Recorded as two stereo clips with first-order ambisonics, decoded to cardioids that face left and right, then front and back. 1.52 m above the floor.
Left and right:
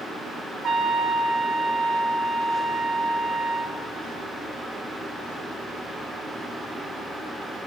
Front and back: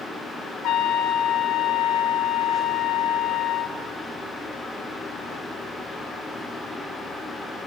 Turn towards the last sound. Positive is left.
turn(degrees=-30)